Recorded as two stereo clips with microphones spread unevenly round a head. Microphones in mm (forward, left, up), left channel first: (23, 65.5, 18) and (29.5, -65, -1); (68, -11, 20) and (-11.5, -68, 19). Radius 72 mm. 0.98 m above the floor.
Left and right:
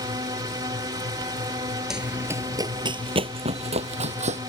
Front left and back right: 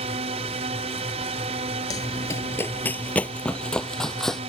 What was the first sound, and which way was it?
A drone, 150° right.